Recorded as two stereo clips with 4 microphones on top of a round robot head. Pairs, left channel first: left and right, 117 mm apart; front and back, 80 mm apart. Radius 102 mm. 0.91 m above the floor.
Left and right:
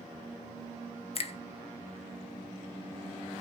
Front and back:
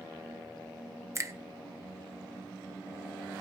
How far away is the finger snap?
About 1.4 m.